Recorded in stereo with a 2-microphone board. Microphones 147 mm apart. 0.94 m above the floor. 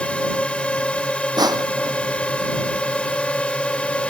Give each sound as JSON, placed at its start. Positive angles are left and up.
{"t": 0.0, "sound": "a drone", "side_deg": 10}
{"t": 1.4, "sound": "crushing", "side_deg": -25}